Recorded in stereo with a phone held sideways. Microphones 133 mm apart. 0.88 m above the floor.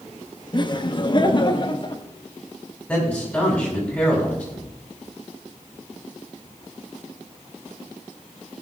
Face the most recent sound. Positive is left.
turn(degrees=10)  # may be behind; listen again after turning